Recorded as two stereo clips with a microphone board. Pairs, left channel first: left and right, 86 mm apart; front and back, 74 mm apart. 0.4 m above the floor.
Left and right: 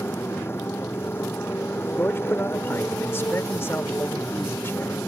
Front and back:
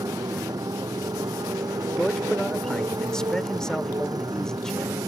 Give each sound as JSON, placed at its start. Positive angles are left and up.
{"t": 0.0, "sound": "a motorcycle", "azimuth_deg": 150}
{"t": 2.0, "sound": "a man speaking", "azimuth_deg": 70}